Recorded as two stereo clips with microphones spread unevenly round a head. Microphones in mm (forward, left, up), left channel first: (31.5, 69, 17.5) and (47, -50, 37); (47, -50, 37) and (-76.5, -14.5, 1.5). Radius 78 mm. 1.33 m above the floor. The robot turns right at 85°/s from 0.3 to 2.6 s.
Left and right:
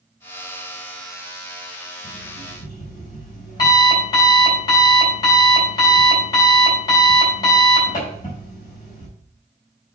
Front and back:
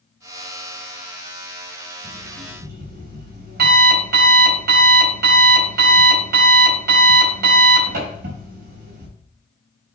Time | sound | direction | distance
2.0 | an alarm clock | 115° left | 4 m